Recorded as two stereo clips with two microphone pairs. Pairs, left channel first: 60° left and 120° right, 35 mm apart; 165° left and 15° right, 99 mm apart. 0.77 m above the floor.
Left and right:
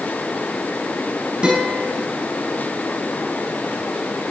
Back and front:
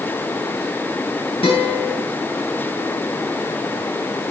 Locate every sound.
1.4 s a guitar: 175° right, 4 m